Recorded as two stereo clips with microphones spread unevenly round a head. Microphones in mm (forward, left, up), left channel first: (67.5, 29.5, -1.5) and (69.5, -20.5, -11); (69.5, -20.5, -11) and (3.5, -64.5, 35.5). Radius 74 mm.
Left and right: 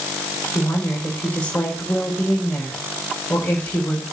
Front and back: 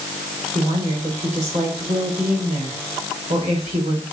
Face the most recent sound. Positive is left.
turn(degrees=165)